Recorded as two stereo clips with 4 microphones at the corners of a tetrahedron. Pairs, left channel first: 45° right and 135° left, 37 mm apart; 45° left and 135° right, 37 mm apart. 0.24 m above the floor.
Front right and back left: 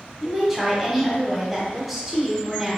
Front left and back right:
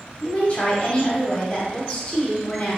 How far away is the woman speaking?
About 1.3 m.